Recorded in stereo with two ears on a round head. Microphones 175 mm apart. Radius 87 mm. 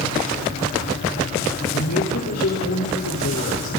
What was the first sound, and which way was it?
A woman speaking, 85° left.